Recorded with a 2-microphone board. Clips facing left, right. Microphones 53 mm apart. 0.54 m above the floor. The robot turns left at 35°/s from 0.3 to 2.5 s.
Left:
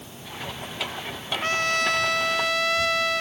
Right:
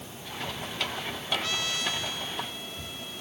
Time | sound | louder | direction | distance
1.4 | a trumpet | left 8 dB | 140° left | ?